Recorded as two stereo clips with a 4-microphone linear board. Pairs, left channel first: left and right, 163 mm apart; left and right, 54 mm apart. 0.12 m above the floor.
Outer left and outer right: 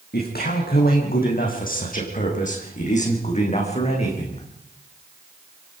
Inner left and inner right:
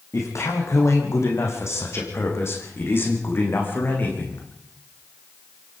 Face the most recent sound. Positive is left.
turn(degrees=35)  # may be behind; listen again after turning